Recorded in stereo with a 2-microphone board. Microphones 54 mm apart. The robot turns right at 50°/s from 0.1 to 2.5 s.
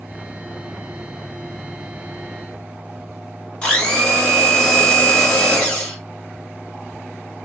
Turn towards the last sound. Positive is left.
turn(degrees=20)  # may be behind; listen again after turning